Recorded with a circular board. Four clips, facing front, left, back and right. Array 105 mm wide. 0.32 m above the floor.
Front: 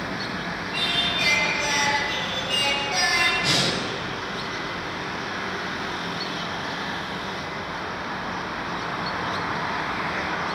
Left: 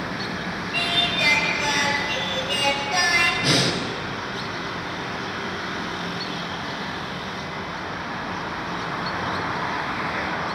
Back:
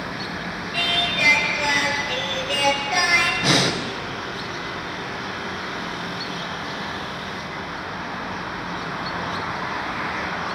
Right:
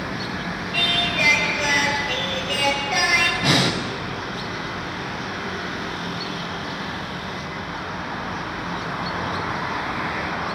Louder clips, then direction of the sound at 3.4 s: Right 2 dB, back 4 dB; 130° right.